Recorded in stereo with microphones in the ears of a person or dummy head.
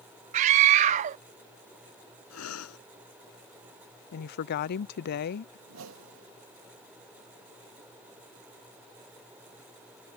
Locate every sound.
0.3 s a scream: 45° right (ahead or behind)
2.3 s breathing: 85° left
4.1 s a woman speaking: 55° left (ahead or behind)
5.7 s a whoosh: 85° right